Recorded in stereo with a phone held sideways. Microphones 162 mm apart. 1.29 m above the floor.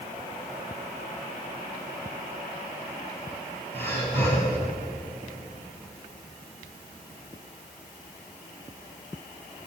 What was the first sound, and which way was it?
Breathing, 15° left (ahead or behind).